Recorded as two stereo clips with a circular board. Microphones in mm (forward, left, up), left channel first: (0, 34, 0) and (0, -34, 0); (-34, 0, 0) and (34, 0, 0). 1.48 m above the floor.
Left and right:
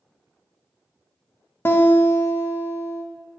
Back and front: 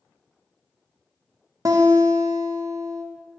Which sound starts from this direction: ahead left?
A guitar, at 1.6 s.